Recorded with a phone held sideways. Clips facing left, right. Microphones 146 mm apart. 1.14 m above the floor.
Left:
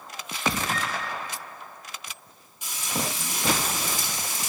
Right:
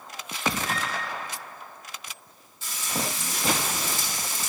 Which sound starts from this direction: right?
A flute, at 0.7 s.